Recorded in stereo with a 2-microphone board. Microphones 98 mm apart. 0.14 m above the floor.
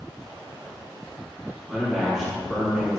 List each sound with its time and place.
1.7 s a man speaking: centre (ahead or behind), 1.2 m